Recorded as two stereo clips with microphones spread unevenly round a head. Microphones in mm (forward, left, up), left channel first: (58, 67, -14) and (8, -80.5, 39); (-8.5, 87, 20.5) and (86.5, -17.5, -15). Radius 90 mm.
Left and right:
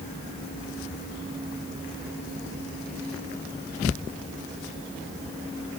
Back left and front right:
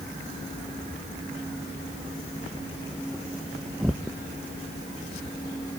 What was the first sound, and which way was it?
Only background noise.